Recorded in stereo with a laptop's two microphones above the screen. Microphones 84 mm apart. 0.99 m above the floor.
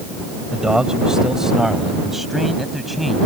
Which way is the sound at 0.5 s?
10° right (ahead or behind).